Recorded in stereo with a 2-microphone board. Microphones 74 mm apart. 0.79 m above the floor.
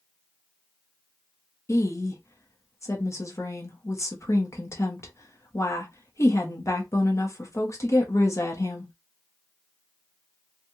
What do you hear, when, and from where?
1.7 s a woman speaking: 40° left (ahead or behind), 1.2 m